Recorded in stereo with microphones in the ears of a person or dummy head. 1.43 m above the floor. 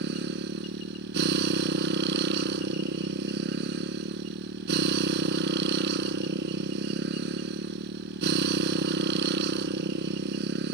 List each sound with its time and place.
0.0 s a motorcycle: 60° right (ahead or behind)